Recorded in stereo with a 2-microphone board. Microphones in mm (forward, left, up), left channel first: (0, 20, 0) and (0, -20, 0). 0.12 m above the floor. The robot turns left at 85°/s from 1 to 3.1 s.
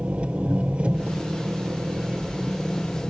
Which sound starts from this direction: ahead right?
An engine running, at 0.0 s.